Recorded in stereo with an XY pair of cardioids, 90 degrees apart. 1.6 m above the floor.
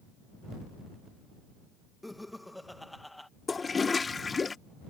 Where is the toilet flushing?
35° left.